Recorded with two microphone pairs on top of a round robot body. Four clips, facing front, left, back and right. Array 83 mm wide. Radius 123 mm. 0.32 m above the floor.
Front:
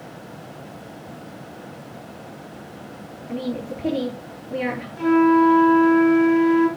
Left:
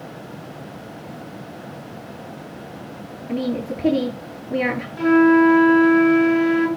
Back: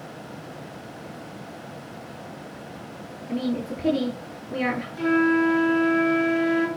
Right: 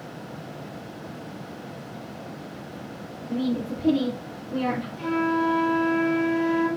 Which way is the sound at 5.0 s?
70° left.